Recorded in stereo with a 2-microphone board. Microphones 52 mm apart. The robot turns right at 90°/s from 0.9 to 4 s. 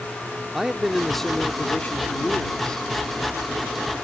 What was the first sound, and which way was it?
A man speaking, 15° right.